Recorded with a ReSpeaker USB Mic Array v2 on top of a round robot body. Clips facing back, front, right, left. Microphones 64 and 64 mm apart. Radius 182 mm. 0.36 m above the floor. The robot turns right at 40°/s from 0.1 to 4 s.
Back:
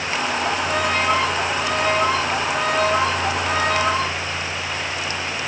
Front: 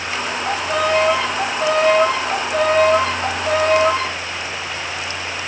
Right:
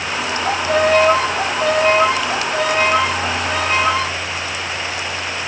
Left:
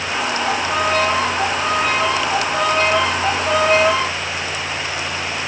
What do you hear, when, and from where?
0.5 s a violin: 105° right, 3.5 m; by 4.2 s 35° left, 3.5 m